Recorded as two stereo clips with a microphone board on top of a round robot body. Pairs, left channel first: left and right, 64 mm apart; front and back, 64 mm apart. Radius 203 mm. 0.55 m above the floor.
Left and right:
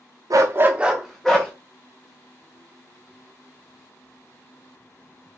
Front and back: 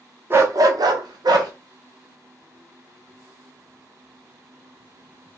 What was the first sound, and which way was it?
A dog barking, 125° right.